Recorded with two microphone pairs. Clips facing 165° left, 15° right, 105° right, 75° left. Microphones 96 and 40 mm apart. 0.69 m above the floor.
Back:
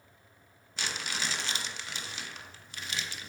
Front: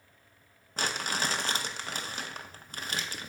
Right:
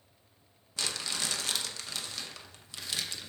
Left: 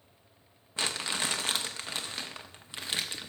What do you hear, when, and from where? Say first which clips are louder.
0.8 s crumpling: front 5 dB, left 3 dB; 20° left, 0.7 m